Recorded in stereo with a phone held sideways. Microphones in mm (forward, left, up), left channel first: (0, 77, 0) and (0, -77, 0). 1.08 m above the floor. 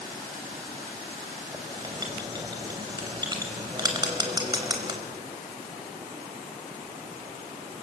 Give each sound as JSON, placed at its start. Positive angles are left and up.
{"t": 1.5, "sound": "writing", "side_deg": -25, "distance_m": 4.0}